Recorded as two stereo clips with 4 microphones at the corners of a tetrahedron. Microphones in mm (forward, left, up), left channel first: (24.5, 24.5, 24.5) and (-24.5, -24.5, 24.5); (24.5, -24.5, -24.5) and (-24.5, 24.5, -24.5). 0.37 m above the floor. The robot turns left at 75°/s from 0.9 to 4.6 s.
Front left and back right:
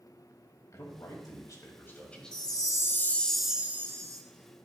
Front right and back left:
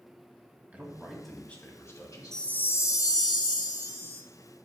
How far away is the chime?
About 0.8 m.